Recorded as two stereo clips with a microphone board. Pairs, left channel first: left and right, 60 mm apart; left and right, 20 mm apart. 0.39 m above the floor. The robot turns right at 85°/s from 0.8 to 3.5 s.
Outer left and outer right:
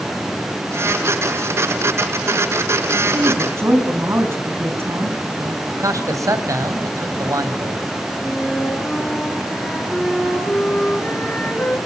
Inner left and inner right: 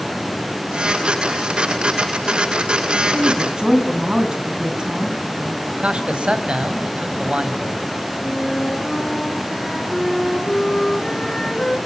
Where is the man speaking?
60° right (ahead or behind), 3 m.